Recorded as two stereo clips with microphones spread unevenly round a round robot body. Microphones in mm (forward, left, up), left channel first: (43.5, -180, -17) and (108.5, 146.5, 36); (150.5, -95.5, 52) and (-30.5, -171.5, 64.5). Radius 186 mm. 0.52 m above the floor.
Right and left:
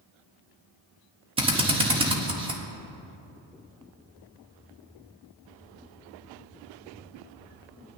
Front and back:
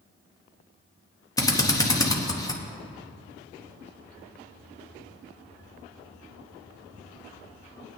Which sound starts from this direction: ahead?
A drill, at 1.4 s.